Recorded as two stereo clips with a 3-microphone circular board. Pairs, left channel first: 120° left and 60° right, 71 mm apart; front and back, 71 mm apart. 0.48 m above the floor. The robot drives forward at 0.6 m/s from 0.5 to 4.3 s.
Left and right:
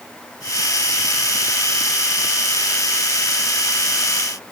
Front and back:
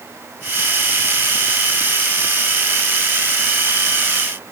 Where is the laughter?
No laughter in this recording.